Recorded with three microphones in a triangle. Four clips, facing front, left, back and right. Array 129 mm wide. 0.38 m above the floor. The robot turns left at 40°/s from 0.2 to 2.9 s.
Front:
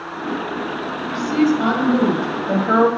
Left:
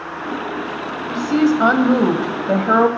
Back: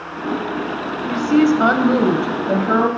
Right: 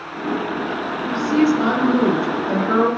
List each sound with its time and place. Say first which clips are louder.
1.1 s a woman speaking: left 1 dB, back 3 dB; 145° left, 1.8 m; by 2.9 s 70° left, 1.8 m